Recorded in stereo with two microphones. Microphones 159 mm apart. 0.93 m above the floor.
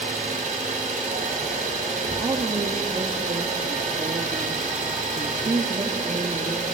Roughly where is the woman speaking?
Right.